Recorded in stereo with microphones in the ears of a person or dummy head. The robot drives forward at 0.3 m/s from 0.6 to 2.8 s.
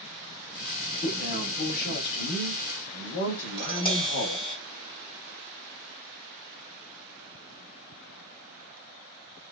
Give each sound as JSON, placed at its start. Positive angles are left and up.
{"t": 1.0, "sound": "a man speaking", "side_deg": 45, "distance_m": 1.4}
{"t": 3.6, "sound": "tapping", "side_deg": 25, "distance_m": 0.9}